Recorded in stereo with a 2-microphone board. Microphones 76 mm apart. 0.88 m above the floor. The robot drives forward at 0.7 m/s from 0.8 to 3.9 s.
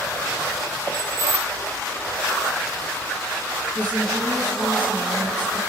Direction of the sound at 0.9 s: 85° left.